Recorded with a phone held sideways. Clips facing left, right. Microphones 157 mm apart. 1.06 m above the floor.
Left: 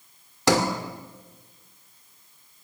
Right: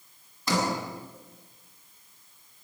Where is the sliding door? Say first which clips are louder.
Left 6 dB; 90° left, 2 m.